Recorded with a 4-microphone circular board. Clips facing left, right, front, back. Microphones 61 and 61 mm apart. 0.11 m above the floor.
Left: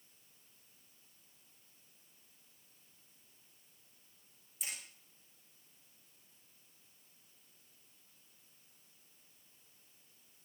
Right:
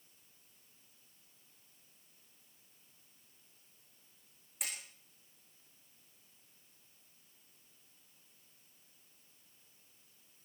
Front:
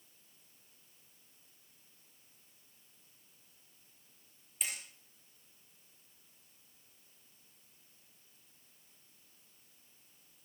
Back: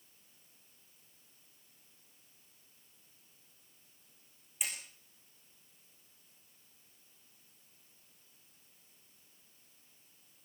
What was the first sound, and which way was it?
Hammering, 100° right.